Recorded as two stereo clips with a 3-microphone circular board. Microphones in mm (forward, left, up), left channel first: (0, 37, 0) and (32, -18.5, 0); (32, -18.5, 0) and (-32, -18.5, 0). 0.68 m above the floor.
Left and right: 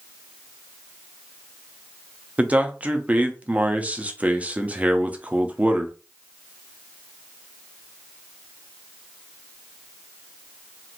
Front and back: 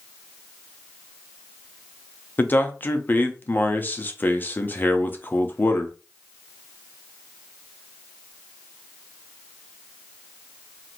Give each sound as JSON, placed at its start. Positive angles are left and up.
{"t": 2.4, "sound": "a man speaking", "azimuth_deg": -20, "distance_m": 0.5}